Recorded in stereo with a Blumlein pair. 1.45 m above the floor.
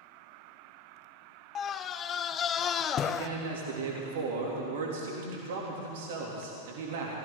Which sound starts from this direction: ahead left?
A scream, at 1.6 s.